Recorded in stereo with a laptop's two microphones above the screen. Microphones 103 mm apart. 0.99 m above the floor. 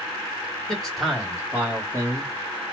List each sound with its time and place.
0.7 s a man speaking: 5° left (ahead or behind), 1.4 m; by 2.3 s 35° right (ahead or behind), 1.1 m